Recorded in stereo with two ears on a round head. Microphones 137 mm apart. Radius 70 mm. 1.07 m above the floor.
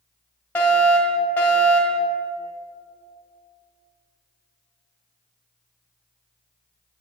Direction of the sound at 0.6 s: 10° left (ahead or behind).